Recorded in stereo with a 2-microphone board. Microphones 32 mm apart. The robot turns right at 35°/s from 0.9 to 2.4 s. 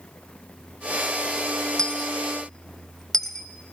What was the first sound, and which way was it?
A dropped coin, 25° left (ahead or behind).